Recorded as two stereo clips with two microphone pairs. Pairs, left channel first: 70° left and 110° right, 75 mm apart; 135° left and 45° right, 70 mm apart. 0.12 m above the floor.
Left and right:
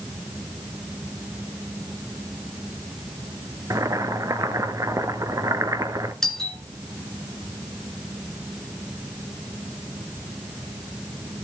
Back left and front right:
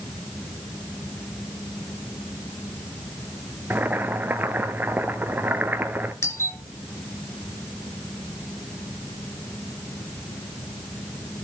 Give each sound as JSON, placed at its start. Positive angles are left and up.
{"t": 3.7, "sound": "boiling", "azimuth_deg": -95, "distance_m": 0.9}
{"t": 6.2, "sound": "a doorbell", "azimuth_deg": 150, "distance_m": 2.5}